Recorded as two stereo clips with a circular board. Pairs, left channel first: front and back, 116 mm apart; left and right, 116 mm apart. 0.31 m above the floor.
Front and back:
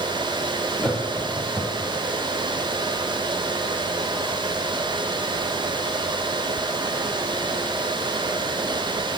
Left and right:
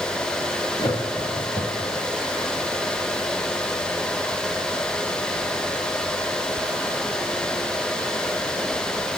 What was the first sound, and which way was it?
Laughter, 90° left.